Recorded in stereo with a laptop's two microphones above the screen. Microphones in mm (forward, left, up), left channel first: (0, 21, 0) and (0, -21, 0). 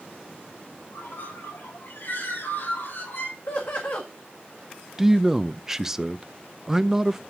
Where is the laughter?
70° left (ahead or behind), 1.6 m.